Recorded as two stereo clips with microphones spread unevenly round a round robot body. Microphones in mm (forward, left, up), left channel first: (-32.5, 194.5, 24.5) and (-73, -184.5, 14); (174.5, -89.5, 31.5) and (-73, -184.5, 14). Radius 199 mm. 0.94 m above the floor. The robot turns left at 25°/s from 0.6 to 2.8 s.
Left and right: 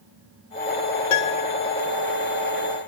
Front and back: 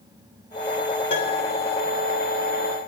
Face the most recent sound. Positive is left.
turn(degrees=25)